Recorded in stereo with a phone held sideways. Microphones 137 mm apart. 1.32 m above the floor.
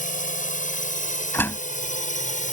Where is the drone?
70° left (ahead or behind); by 2.5 s 65° left (ahead or behind).